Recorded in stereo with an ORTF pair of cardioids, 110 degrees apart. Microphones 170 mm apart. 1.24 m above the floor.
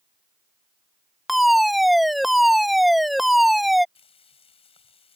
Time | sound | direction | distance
1.3 | a fire alarm | straight ahead | ?
4.0 | frying | 35° left | ?